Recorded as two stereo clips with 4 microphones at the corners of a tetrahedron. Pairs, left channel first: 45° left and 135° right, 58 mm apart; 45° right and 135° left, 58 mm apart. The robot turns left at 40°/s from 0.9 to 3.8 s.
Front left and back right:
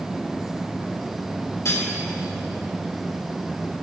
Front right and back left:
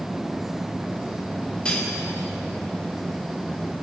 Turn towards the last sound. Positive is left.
turn(degrees=-60)